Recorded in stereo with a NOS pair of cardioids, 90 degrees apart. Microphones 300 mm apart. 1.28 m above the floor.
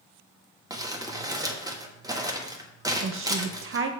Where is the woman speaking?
45° right, 0.7 m.